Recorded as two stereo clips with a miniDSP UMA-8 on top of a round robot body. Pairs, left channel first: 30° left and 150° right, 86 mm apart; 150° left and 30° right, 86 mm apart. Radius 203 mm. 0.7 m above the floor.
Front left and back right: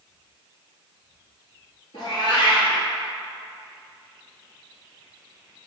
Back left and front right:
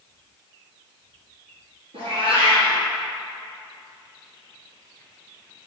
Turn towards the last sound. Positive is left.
turn(degrees=-10)